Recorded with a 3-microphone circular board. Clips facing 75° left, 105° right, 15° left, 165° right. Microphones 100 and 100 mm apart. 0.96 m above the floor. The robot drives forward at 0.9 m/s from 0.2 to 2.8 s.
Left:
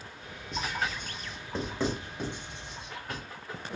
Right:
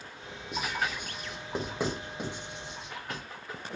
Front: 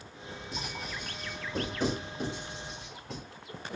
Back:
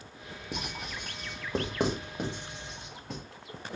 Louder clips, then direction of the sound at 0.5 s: Even, back 2 dB; 175° left.